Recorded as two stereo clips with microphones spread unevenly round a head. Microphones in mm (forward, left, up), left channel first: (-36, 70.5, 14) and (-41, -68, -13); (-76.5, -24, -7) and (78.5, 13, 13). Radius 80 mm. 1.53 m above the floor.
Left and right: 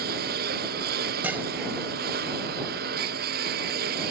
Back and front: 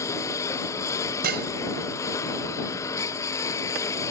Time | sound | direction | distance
0.0 | a lawn mower | 95° right | ?
1.2 | dishes clattering | 10° right | ?